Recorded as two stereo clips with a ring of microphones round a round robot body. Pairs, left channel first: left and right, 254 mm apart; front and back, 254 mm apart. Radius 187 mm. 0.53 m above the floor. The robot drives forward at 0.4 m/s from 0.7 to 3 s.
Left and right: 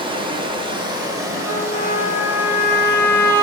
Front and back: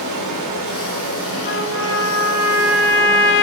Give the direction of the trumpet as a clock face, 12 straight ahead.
11 o'clock.